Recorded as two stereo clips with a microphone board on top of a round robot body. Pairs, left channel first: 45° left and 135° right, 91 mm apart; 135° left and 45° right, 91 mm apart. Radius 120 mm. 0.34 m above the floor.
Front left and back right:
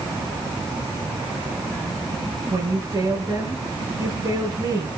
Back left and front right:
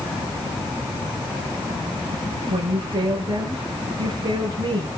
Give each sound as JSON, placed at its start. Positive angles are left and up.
{"t": 2.5, "sound": "a woman speaking", "azimuth_deg": -80, "distance_m": 5.5}